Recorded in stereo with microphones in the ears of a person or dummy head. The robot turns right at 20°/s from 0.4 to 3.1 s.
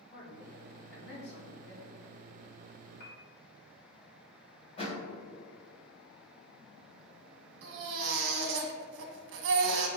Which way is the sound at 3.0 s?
50° left (ahead or behind).